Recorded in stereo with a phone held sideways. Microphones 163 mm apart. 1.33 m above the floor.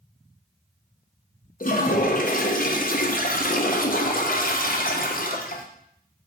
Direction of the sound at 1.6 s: 60° left (ahead or behind).